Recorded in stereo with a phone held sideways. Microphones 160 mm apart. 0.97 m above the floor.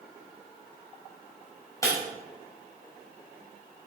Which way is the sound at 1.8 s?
20° left (ahead or behind).